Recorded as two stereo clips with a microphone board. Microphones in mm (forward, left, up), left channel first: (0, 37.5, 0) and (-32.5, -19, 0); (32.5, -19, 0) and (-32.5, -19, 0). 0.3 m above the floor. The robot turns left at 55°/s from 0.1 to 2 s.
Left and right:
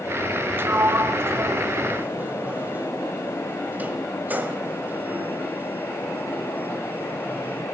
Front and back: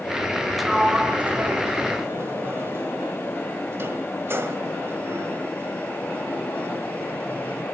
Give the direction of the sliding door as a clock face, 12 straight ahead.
3 o'clock.